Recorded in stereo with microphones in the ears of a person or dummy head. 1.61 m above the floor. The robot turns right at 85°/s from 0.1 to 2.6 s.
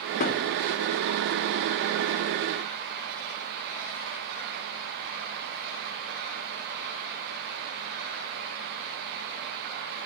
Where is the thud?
45° left (ahead or behind), 2.5 m; by 0.5 s 25° left (ahead or behind), 2.5 m.